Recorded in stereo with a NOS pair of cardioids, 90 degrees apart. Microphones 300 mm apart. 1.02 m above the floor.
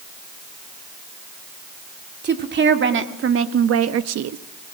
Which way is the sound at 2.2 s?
35° right.